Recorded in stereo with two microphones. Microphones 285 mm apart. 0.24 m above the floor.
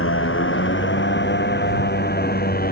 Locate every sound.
0.0 s a motorcycle: 45° left (ahead or behind); by 2.7 s 30° left (ahead or behind)